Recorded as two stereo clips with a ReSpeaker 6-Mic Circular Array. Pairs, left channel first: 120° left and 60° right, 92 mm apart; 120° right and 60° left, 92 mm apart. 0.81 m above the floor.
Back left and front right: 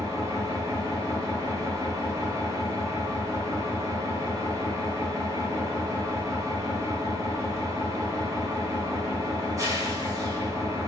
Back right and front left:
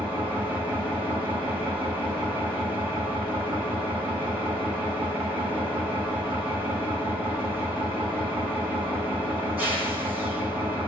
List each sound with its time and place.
0.0 s an engine running: 10° right, 2.5 m